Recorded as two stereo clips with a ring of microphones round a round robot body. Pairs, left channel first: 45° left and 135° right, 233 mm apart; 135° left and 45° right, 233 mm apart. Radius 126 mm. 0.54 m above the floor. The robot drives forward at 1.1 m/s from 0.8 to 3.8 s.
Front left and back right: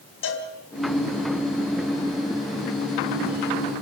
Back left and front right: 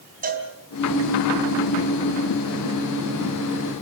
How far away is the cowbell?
About 3.5 m.